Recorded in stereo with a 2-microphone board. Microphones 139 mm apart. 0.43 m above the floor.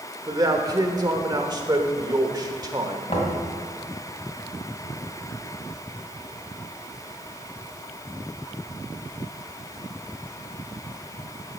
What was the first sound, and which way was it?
A man speaking, 30° right (ahead or behind).